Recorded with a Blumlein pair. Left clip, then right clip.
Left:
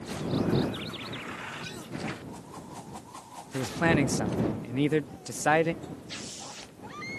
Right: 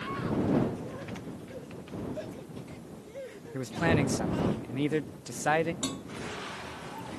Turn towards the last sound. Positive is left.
turn(degrees=-50)